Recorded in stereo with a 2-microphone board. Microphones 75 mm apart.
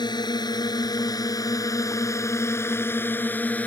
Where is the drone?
70° left (ahead or behind); by 3.7 s 20° left (ahead or behind).